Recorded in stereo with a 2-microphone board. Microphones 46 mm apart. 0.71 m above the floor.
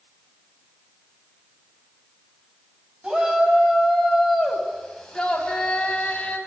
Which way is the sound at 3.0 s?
20° right (ahead or behind).